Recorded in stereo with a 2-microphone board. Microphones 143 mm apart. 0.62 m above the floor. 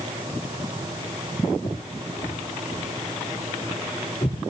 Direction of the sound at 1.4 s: 60° left (ahead or behind).